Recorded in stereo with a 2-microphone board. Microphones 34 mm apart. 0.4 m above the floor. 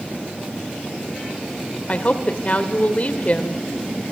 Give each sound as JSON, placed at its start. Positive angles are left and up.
{"t": 1.9, "sound": "a woman speaking", "side_deg": 40, "distance_m": 1.5}